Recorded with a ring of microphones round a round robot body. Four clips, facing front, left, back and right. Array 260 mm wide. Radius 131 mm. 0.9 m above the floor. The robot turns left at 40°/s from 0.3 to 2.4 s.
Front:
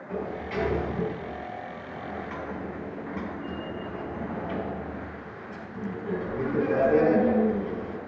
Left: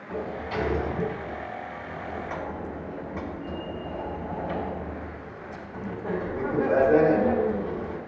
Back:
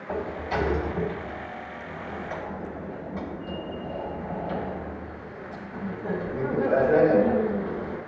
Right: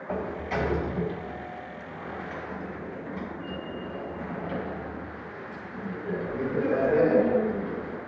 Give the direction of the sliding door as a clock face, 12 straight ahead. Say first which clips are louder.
Right 1 dB, back 3 dB; 4 o'clock.